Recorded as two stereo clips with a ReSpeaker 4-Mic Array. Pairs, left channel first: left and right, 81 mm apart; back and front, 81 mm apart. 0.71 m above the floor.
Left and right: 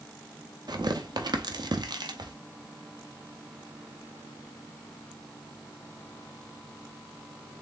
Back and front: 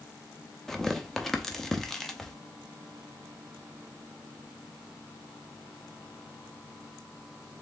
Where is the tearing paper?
95° right, 0.7 m.